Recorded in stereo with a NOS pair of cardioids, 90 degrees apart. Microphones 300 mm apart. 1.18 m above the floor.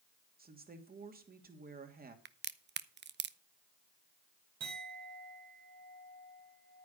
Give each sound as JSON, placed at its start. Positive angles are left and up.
{"t": 0.4, "sound": "a woman speaking", "azimuth_deg": -30, "distance_m": 2.5}
{"t": 2.2, "sound": "a crack", "azimuth_deg": -35, "distance_m": 0.8}
{"t": 4.6, "sound": "a clink", "azimuth_deg": -60, "distance_m": 4.0}